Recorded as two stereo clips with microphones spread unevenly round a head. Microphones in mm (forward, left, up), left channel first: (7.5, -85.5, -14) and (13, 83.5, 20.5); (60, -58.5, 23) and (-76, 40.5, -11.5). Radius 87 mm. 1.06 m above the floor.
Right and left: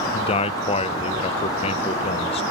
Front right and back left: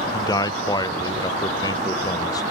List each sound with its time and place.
0.1 s a man speaking: 110° right, 0.6 m